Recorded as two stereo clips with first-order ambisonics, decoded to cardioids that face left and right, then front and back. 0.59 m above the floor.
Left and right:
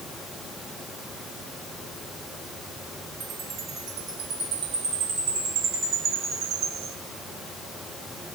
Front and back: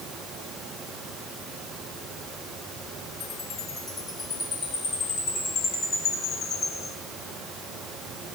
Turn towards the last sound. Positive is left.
turn(degrees=-60)